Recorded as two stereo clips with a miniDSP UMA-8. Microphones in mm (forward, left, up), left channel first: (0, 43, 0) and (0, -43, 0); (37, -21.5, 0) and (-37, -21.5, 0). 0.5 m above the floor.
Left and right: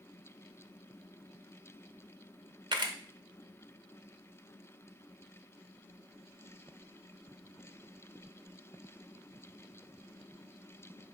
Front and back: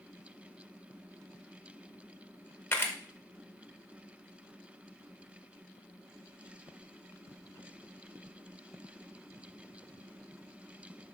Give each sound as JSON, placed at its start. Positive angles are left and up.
{"t": 2.7, "sound": "a camera shutter", "azimuth_deg": -60, "distance_m": 0.5}